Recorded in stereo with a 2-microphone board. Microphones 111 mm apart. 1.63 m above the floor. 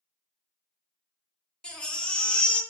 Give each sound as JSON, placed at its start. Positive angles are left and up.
{"t": 1.6, "sound": "a baby crying", "side_deg": 10, "distance_m": 0.5}